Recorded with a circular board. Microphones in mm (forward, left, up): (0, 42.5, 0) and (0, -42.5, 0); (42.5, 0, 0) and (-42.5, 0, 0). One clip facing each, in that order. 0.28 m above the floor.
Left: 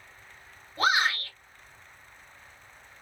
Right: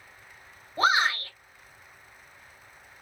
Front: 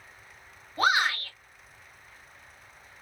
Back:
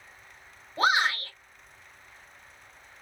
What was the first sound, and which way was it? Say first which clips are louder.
A shout: right 2 dB, even; 130° right.